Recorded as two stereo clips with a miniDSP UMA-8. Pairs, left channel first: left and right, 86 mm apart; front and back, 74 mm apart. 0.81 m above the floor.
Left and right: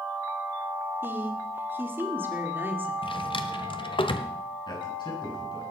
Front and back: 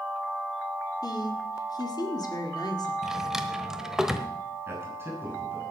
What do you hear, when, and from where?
1.0 s a woman speaking: 25° right, 2 m
3.0 s a drawer: 95° left, 1.2 m
4.7 s a man speaking: 120° left, 7.5 m